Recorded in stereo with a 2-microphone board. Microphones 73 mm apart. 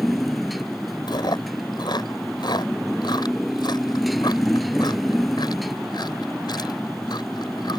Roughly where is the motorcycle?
Centre.